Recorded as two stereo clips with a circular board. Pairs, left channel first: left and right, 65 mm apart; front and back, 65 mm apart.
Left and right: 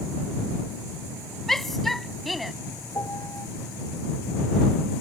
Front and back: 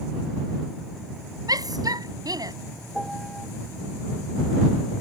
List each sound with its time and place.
1.5 s a shout: 175° left; by 2.5 s straight behind
2.9 s a piano: 85° left